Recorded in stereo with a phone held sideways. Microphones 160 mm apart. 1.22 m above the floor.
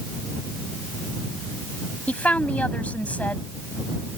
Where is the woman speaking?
10° left (ahead or behind).